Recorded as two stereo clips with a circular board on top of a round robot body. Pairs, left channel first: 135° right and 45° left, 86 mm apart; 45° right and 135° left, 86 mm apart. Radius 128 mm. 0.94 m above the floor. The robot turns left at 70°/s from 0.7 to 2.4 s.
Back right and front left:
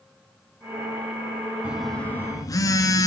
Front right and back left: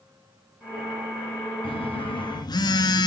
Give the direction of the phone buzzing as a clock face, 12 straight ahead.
1 o'clock.